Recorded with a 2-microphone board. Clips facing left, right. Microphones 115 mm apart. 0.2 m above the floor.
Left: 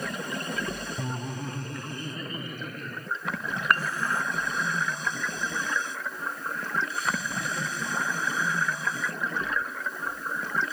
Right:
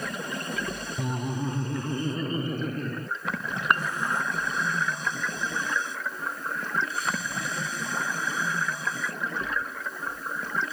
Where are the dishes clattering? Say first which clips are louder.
Right 1 dB; 20° right (ahead or behind).